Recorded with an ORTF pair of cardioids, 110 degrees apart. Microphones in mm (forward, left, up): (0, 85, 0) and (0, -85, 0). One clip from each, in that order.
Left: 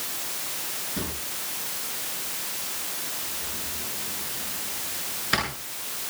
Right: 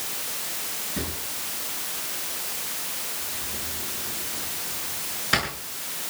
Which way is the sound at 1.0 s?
5° right.